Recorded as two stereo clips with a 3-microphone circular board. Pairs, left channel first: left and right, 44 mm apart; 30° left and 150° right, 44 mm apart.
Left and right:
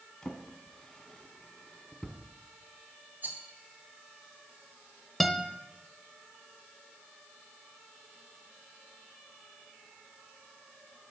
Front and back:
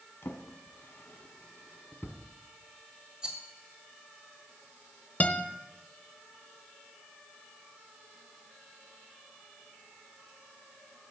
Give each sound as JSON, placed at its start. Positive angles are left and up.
{"t": 0.2, "sound": "a drawer", "azimuth_deg": 20, "distance_m": 1.4}
{"t": 3.2, "sound": "a rattle", "azimuth_deg": -90, "distance_m": 1.8}
{"t": 5.2, "sound": "a guitar", "azimuth_deg": 10, "distance_m": 0.8}